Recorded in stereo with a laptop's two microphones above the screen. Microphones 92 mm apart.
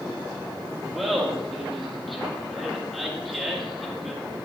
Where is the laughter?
Centre (ahead or behind), 1.9 m.